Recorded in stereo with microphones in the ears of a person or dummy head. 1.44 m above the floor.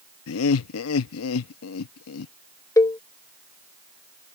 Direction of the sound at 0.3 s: 80° left.